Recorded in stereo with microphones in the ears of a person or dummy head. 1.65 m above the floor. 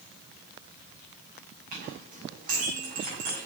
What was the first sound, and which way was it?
A clink, 45° right (ahead or behind).